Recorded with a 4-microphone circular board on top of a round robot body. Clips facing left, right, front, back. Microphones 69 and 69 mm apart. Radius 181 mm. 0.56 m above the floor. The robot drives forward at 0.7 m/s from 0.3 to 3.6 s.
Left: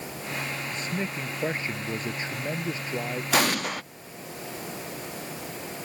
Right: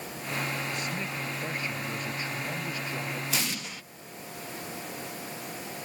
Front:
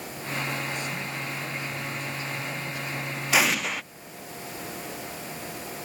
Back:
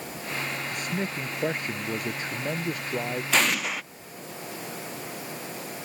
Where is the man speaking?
145° left; by 3.2 s 150° left.